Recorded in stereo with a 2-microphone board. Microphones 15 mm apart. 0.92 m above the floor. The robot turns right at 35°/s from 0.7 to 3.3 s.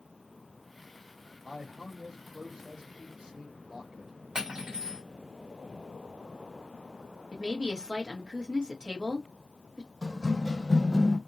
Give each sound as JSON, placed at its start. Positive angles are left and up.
{"t": 1.4, "sound": "a man speaking", "azimuth_deg": -140, "distance_m": 1.4}
{"t": 4.3, "sound": "cutlery clinking", "side_deg": -75, "distance_m": 1.0}
{"t": 7.3, "sound": "a woman speaking", "side_deg": -60, "distance_m": 1.1}
{"t": 10.0, "sound": "running footsteps", "side_deg": -55, "distance_m": 1.5}